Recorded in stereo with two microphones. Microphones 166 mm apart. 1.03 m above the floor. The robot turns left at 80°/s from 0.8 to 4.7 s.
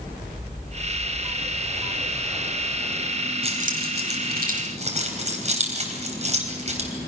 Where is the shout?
I don't hear a shout.